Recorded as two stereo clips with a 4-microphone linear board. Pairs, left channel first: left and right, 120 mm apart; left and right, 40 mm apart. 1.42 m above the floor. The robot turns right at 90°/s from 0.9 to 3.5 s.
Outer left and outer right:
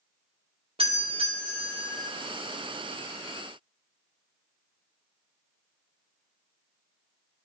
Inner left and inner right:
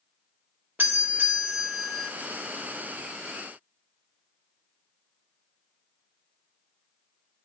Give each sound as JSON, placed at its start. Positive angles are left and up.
{"t": 0.8, "sound": "a doorbell", "azimuth_deg": -95, "distance_m": 1.2}